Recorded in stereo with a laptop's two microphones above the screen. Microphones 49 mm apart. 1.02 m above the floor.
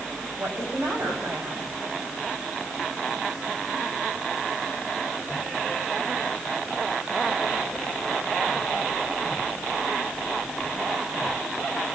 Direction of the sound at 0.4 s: 75° right (ahead or behind).